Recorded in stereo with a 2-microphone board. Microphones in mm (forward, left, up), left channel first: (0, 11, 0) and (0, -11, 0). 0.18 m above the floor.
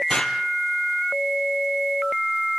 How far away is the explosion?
About 2.5 m.